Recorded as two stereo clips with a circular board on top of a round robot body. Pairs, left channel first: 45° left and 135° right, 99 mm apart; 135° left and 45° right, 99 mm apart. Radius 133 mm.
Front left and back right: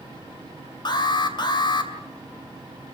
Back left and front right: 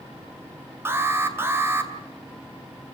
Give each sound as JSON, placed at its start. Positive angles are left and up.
{"t": 0.8, "sound": "an alarm", "azimuth_deg": 15, "distance_m": 2.5}